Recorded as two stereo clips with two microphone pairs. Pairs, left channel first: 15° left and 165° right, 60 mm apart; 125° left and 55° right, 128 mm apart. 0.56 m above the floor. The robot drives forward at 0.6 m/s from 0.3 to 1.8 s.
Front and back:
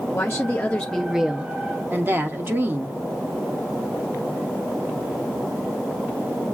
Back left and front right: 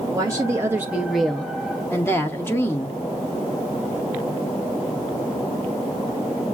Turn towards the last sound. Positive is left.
turn(degrees=-175)